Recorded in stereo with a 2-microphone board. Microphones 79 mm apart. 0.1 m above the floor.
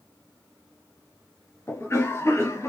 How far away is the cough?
About 1.3 m.